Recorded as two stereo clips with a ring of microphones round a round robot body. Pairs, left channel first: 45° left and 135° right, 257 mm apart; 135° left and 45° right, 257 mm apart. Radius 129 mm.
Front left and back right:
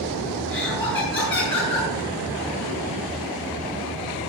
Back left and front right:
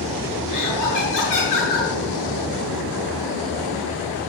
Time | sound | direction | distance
0.5 | laughter | 120° left | 6 m